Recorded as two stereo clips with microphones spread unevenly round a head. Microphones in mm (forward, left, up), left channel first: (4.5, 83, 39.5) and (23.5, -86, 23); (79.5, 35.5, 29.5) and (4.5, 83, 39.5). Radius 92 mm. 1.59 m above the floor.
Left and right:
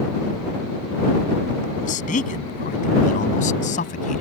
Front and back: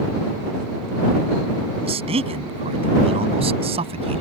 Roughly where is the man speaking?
Behind left.